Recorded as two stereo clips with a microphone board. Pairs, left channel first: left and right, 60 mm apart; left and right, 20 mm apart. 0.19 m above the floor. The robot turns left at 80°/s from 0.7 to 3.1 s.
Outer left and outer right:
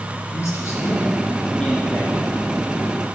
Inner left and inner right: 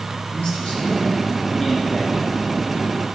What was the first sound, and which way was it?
A man speaking, 95° left.